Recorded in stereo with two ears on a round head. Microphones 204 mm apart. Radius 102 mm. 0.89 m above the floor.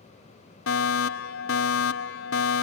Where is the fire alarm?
65° left (ahead or behind).